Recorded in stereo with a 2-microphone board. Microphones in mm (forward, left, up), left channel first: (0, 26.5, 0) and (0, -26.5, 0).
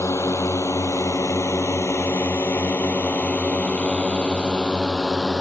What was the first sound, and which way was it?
A drone, 65° left (ahead or behind).